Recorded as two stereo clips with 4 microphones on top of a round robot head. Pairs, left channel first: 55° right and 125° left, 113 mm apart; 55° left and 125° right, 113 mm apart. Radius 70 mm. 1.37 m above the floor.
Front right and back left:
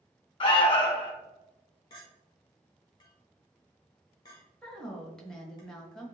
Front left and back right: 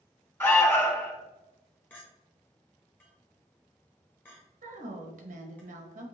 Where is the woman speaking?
140° right, 1.3 m.